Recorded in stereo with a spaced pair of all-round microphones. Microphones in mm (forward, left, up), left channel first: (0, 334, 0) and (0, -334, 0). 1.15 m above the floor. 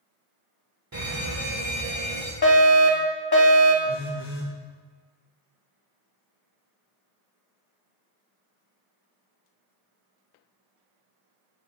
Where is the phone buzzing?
40° left (ahead or behind), 1.0 m.